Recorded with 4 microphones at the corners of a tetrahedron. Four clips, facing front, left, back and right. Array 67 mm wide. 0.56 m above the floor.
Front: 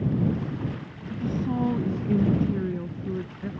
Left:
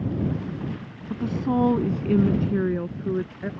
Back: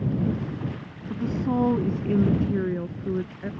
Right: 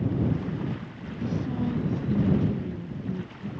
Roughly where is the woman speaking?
Behind left.